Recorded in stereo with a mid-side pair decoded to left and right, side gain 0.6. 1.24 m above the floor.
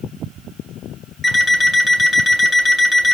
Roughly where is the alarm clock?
Ahead.